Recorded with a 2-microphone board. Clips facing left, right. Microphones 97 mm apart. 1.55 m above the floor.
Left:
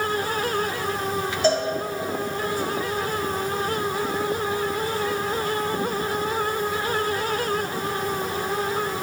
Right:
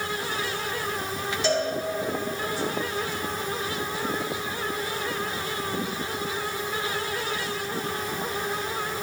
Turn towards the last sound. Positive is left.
turn(degrees=45)  # may be behind; listen again after turning